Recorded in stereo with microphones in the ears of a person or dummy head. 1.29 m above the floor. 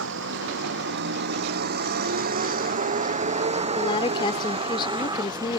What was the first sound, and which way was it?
A vehicle, 70° right (ahead or behind).